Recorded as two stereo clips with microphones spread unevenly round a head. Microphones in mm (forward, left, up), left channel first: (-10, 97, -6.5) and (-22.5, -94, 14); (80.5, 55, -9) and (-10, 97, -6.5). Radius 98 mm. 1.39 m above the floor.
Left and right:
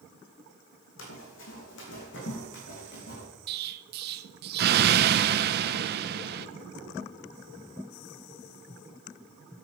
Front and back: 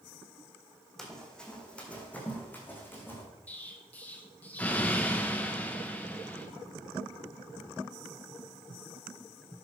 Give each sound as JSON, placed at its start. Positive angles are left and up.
{"t": 1.0, "sound": "running footsteps", "azimuth_deg": 60, "distance_m": 3.5}
{"t": 3.5, "sound": "an explosion", "azimuth_deg": -105, "distance_m": 0.6}